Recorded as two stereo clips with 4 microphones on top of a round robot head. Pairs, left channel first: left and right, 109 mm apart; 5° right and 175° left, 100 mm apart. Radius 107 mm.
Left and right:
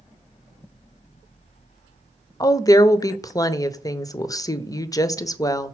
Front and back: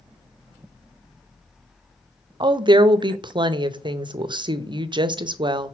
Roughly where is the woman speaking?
Behind left.